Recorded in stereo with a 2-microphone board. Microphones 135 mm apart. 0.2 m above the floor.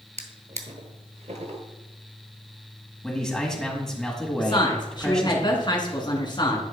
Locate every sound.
0.2 s a drawer: 60° right (ahead or behind), 1.0 m
3.0 s a man speaking: 5° left (ahead or behind), 1.6 m
4.4 s a woman speaking: 35° left (ahead or behind), 2 m